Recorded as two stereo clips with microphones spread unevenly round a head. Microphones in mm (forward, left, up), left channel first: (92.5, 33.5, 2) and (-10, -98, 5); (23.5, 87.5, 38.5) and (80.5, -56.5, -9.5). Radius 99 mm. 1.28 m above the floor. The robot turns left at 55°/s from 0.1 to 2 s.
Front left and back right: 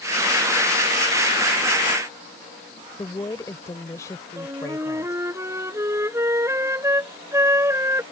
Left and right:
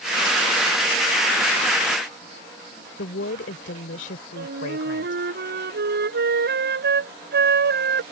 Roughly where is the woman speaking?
Behind left.